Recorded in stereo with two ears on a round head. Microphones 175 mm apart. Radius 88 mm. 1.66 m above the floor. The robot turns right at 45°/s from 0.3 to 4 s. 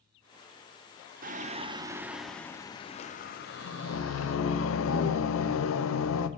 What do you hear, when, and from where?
1.2 s singing: 45° right, 0.8 m; by 6.3 s 80° left, 0.8 m